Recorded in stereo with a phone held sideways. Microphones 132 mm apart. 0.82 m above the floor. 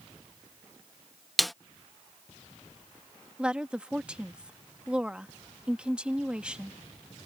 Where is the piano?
No piano in this recording.